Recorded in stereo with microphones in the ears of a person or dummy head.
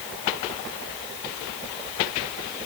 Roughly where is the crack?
I don't hear a crack.